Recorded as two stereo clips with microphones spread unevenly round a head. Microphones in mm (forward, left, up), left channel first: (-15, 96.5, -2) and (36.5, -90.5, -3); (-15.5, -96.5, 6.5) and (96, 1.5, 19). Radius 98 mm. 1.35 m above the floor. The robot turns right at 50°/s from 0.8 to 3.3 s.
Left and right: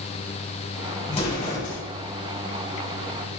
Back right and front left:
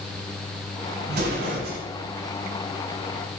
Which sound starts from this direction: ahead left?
An explosion, at 1.1 s.